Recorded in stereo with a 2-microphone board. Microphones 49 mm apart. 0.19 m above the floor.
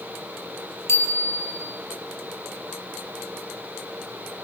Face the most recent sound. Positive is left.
turn(degrees=65)  # may be behind; listen again after turning